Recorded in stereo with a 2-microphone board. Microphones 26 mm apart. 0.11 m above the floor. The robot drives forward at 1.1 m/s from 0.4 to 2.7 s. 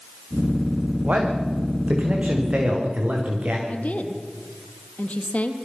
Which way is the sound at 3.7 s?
65° left (ahead or behind).